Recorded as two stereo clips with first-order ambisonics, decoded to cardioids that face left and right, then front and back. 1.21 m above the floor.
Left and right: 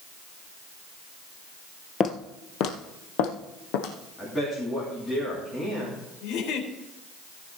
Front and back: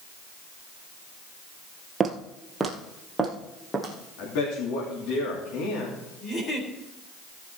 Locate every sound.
2.0 s footsteps: 120° left, 1.3 m; by 3.9 s 85° left, 3 m
4.2 s a man speaking: 10° left, 3 m
6.2 s a giggle: 65° left, 3.5 m